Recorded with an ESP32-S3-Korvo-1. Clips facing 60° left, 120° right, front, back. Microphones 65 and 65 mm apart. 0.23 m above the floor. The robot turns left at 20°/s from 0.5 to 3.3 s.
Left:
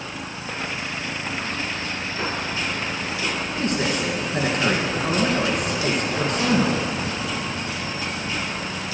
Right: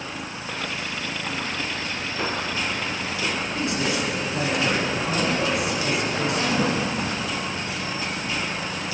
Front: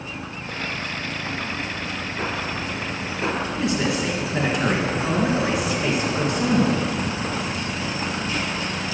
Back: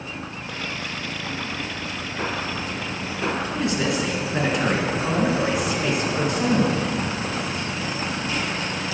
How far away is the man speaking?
About 2.5 m.